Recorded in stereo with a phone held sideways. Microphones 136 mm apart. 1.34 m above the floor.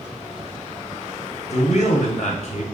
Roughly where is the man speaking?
Left.